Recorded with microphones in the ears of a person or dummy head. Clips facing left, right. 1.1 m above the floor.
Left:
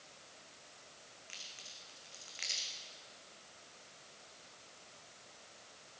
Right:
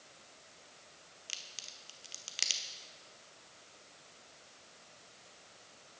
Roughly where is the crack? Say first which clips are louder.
Even; right.